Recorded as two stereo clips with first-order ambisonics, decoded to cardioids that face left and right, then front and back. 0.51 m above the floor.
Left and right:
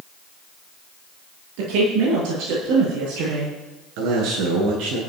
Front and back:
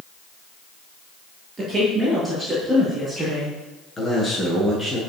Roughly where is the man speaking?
Right.